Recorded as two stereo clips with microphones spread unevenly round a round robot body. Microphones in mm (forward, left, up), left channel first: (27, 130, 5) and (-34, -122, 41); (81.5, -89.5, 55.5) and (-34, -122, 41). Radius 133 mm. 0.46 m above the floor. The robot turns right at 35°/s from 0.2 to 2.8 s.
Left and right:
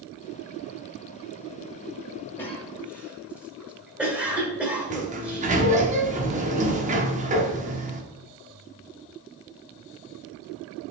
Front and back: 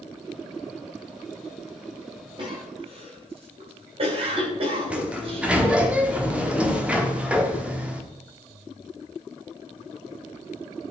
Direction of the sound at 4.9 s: 125° right.